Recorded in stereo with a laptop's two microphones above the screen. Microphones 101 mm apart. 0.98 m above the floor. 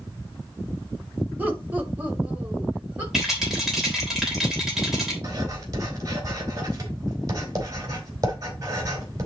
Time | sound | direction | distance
1.4 | laughter | 15° right (ahead or behind) | 2.0 m
3.1 | a rattle | 5° right (ahead or behind) | 3 m
5.2 | writing | 35° right (ahead or behind) | 2.5 m